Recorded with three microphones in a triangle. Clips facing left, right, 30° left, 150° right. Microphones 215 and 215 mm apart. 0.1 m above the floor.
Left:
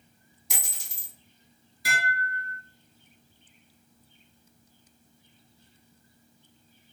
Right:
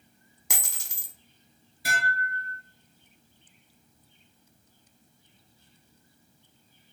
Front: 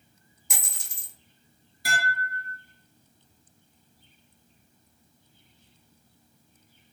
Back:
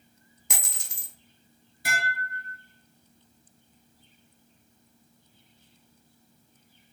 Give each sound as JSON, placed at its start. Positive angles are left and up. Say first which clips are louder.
{"t": 0.5, "sound": "a dropped coin", "louder": "right 3 dB, back 3 dB", "azimuth_deg": -115, "distance_m": 0.5}
{"t": 1.9, "sound": "dishes clattering", "louder": "even, front 2 dB", "azimuth_deg": -120, "distance_m": 1.0}